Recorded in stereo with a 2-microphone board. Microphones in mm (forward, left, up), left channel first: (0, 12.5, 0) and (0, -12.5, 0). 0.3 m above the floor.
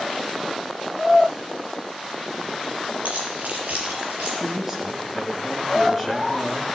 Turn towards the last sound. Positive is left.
turn(degrees=-15)  # may be behind; listen again after turning